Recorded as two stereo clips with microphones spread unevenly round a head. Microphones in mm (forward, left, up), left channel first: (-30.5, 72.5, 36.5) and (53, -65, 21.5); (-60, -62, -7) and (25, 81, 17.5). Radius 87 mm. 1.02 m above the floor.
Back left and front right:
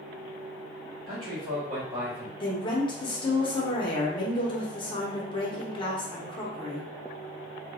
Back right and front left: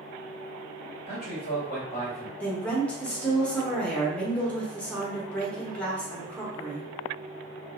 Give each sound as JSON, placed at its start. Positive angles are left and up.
{"t": 1.1, "sound": "a man speaking", "azimuth_deg": -70, "distance_m": 1.3}
{"t": 2.4, "sound": "a woman speaking", "azimuth_deg": 170, "distance_m": 0.8}